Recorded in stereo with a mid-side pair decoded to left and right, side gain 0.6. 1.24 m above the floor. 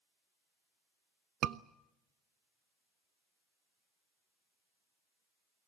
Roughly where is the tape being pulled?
No tape being pulled in this recording.